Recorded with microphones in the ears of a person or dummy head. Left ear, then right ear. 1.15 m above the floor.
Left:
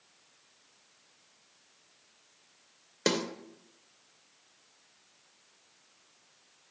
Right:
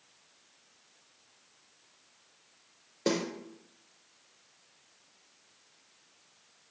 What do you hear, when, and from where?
3.1 s a snare drum: 40° left (ahead or behind), 0.8 m